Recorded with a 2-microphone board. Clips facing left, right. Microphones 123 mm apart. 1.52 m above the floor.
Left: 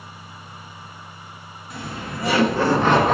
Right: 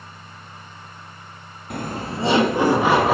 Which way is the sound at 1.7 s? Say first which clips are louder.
Right 4 dB; 60° right (ahead or behind).